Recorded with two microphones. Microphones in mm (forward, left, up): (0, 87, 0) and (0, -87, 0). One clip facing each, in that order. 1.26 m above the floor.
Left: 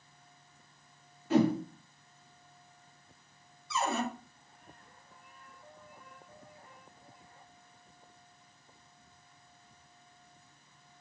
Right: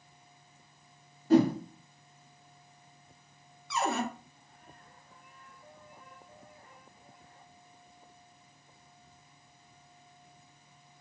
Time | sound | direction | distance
1.3 | a whoosh | 35° right (ahead or behind) | 1.0 m
3.7 | a cupboard door | 65° right (ahead or behind) | 0.8 m